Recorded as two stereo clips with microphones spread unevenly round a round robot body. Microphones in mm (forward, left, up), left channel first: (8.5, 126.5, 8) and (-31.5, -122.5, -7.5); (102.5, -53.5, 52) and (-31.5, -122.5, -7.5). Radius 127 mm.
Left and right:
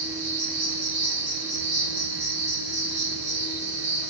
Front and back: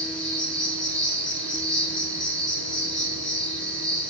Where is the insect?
75° right, 2.5 m.